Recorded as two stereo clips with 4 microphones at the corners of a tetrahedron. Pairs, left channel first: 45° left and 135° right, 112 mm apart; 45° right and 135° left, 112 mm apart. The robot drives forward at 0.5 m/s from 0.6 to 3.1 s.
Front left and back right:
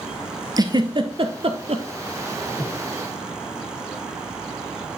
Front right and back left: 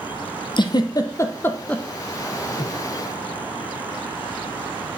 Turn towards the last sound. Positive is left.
turn(degrees=-55)